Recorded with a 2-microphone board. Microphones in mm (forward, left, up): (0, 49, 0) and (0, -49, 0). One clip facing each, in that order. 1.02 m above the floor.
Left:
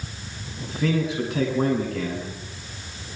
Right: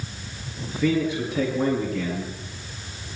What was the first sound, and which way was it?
A man speaking, 90° left.